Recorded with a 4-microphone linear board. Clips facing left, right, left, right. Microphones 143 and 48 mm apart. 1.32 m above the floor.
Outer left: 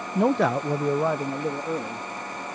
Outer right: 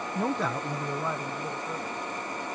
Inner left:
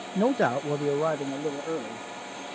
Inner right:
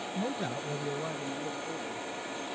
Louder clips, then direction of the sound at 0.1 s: Outer left 9 dB, inner left 12 dB; 65° left (ahead or behind).